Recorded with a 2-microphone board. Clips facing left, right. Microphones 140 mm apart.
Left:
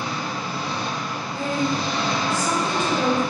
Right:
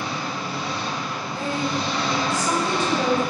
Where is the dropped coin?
I don't hear a dropped coin.